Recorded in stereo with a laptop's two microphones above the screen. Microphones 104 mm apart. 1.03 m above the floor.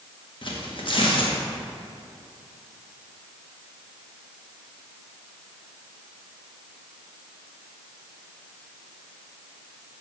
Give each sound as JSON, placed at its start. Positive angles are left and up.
{"t": 0.4, "sound": "tearing paper", "side_deg": 55, "distance_m": 1.1}